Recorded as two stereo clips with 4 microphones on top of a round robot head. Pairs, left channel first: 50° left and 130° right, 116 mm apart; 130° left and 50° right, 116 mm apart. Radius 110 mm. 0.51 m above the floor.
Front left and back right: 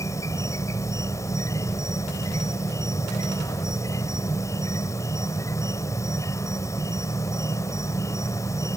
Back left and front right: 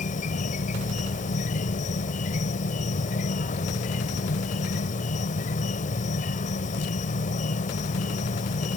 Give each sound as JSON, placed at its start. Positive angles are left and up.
{"t": 0.0, "sound": "an insect", "azimuth_deg": 115}